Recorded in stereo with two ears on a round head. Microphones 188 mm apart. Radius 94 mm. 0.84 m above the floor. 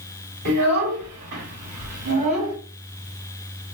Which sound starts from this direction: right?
A child speaking, at 0.5 s.